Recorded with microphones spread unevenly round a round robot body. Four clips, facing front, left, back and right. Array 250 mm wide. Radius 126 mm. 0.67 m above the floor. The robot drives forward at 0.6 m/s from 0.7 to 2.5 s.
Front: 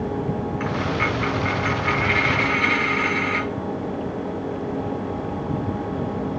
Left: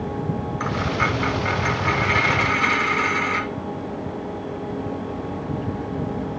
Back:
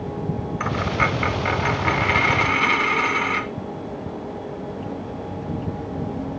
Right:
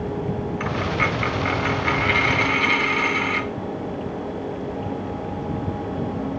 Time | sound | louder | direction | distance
0.6 | a dropped coin | left 1 dB, back 3 dB | 175° left | 0.8 m